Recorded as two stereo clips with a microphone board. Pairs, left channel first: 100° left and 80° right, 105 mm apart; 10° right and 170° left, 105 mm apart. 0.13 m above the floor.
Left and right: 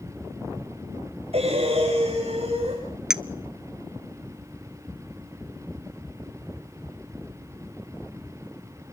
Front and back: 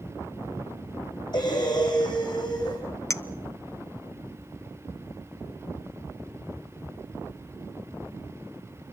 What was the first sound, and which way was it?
Breathing, 55° right.